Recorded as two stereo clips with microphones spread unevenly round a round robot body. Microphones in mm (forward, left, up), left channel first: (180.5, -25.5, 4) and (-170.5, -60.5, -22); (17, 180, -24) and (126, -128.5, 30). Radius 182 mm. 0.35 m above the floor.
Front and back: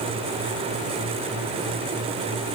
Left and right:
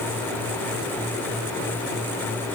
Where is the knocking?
No knocking in this recording.